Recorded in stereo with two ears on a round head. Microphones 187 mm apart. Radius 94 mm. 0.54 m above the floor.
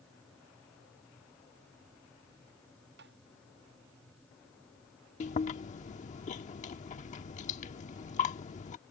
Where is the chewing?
35° left (ahead or behind).